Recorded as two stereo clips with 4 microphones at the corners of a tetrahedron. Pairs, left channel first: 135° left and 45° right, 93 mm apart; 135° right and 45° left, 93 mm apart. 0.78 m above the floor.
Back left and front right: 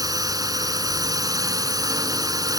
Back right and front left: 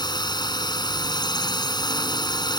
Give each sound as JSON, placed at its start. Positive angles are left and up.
{"t": 0.0, "sound": "a drone", "azimuth_deg": -95}